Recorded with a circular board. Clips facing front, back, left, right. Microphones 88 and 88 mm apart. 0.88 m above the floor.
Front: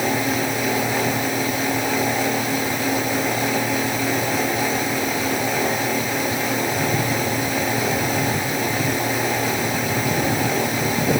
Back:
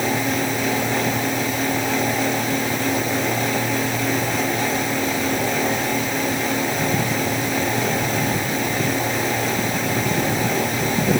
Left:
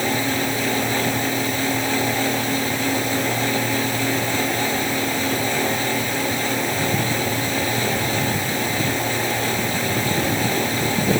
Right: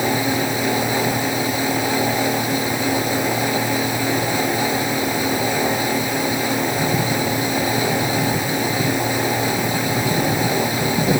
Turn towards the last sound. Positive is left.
No sound to turn to.